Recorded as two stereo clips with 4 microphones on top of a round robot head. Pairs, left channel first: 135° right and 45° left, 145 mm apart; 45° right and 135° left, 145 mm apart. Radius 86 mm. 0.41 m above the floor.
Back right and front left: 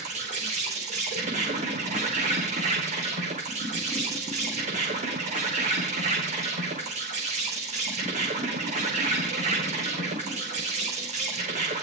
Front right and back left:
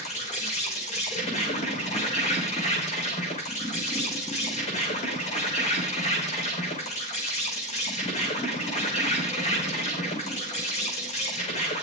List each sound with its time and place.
0.0 s an insect: straight ahead, 5.5 m